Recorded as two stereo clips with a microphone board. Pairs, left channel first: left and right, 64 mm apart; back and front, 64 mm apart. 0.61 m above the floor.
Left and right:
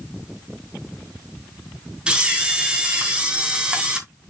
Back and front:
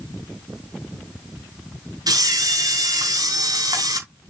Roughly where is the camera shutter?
Ahead.